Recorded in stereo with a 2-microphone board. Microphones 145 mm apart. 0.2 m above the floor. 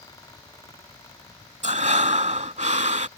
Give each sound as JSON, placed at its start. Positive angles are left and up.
{"t": 1.6, "sound": "breathing", "side_deg": -55}